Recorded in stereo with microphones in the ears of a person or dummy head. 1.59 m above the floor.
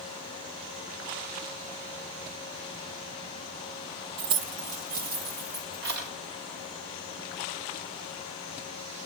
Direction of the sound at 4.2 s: 30° right (ahead or behind).